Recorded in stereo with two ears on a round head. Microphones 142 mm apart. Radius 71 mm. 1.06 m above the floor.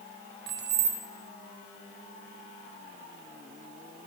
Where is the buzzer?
I don't hear a buzzer.